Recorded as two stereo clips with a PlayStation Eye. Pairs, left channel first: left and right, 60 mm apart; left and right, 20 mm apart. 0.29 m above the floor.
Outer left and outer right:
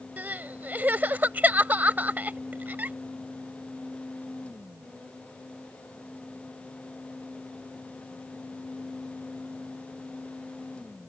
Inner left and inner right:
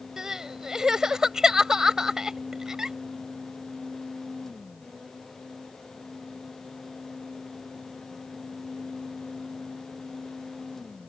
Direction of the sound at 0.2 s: 30° right (ahead or behind).